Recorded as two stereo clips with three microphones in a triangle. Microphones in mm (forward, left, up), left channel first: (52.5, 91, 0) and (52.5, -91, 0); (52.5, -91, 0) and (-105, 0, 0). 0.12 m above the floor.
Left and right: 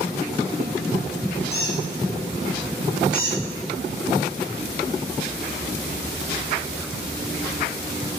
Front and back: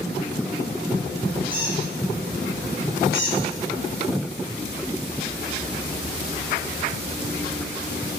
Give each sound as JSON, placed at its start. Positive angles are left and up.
{"t": 1.5, "sound": "a squeak", "azimuth_deg": 115, "distance_m": 5.0}
{"t": 3.1, "sound": "a squeak", "azimuth_deg": 125, "distance_m": 5.0}